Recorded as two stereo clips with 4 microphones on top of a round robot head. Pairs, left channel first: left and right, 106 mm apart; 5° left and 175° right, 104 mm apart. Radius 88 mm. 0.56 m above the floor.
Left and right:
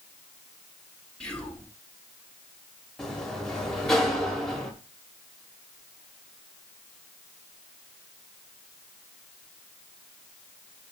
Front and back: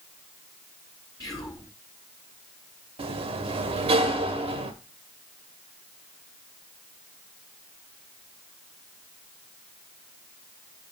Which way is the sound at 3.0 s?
175° left.